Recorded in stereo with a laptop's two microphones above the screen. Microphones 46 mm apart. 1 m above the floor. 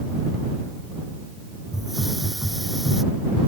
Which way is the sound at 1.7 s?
5° right (ahead or behind).